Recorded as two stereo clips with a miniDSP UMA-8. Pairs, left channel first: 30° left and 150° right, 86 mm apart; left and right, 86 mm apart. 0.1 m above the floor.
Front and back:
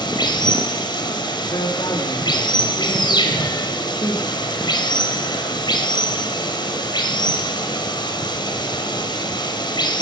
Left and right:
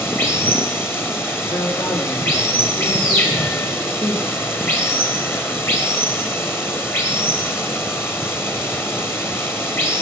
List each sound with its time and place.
0.0 s running water: 30° left, 2.5 m
1.5 s a man speaking: 60° left, 3 m